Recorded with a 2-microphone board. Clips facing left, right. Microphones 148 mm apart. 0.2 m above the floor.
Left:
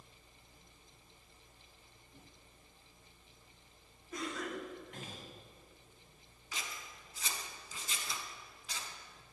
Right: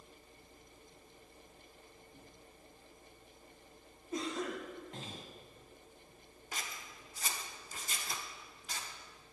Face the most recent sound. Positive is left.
turn(degrees=-50)  # may be behind; listen again after turning